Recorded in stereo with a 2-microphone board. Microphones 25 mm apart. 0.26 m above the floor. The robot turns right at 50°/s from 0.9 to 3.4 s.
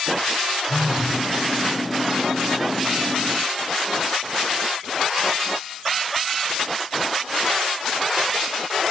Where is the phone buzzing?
40° left (ahead or behind), 7.5 m; by 1.2 s 25° left (ahead or behind), 7.5 m.